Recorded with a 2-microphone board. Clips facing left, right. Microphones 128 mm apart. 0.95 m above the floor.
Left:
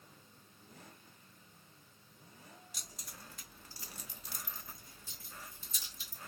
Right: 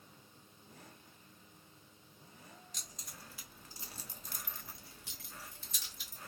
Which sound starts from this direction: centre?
Keys jangling, at 2.7 s.